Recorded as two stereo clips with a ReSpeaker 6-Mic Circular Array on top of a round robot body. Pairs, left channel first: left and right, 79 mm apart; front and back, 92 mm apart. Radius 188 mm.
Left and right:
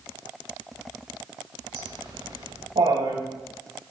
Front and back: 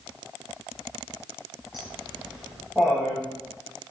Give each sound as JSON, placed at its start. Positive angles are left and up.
{"t": 1.7, "sound": "laughter", "azimuth_deg": -95, "distance_m": 8.0}